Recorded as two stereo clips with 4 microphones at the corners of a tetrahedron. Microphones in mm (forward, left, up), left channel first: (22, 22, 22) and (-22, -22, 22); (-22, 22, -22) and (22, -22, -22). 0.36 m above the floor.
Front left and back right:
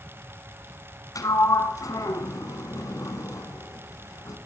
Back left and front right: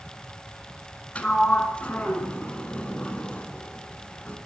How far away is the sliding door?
About 1.4 m.